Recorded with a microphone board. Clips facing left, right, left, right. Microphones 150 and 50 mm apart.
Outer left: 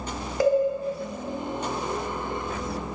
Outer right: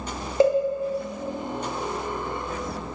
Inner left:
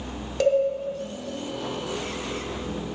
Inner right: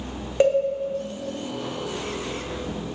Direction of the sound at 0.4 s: 25° right (ahead or behind).